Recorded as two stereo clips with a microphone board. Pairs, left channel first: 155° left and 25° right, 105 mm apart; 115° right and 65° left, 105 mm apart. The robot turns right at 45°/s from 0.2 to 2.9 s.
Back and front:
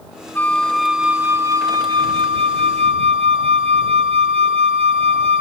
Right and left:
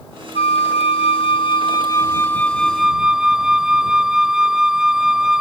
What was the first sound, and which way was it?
A flute, 130° right.